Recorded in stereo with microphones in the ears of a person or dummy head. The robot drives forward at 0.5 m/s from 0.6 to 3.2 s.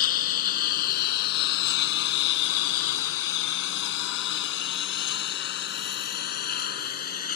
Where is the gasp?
I don't hear a gasp.